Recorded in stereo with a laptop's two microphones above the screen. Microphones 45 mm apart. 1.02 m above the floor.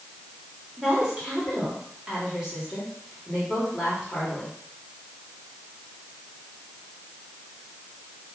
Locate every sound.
0.8 s a woman speaking: 15° right (ahead or behind), 2.5 m